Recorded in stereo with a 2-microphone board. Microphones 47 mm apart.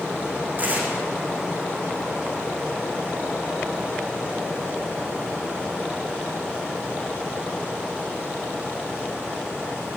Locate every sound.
0.6 s tearing paper: 35° right (ahead or behind), 6 m